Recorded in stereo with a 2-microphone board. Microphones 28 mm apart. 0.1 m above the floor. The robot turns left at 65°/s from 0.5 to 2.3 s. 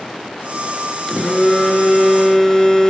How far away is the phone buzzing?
About 1.1 m.